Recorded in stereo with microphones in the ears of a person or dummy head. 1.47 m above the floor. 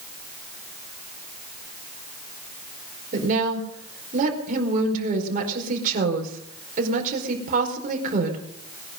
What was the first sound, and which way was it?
A woman speaking, 50° right (ahead or behind).